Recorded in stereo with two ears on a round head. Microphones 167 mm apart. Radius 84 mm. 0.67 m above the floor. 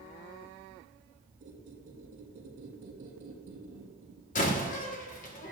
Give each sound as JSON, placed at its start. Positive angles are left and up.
{"t": 1.4, "sound": "a squeak", "side_deg": -45, "distance_m": 4.0}
{"t": 4.3, "sound": "a door slam", "side_deg": 45, "distance_m": 1.5}